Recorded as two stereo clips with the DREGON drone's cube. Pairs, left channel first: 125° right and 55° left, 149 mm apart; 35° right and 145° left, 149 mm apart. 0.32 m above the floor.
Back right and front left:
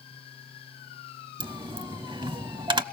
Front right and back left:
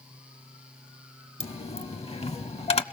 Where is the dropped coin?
5° left, 0.6 m.